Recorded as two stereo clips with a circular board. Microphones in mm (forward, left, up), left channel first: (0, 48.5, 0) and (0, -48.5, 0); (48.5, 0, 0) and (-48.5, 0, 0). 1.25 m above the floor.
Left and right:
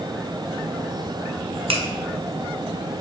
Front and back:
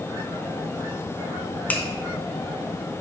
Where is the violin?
I don't hear a violin.